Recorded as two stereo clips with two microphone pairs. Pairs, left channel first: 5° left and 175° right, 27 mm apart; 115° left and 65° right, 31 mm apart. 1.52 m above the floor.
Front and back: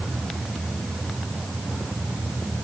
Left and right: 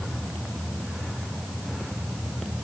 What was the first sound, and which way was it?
Only background noise.